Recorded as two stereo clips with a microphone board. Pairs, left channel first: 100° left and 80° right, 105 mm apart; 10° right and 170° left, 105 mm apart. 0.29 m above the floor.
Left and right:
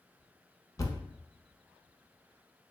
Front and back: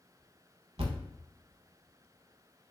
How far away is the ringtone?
I don't hear a ringtone.